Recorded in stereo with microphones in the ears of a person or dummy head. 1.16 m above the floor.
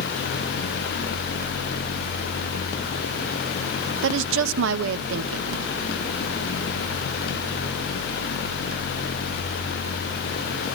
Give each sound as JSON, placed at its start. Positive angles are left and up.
{"t": 4.0, "sound": "a woman speaking", "side_deg": -65, "distance_m": 0.7}